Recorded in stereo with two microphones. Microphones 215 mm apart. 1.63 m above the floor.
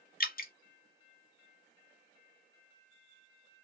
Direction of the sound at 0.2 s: 45° left (ahead or behind).